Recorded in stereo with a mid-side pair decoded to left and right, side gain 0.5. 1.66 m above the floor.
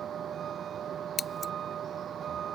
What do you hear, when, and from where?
0.0 s a vehicle: 50° right
1.2 s scissors: 30° left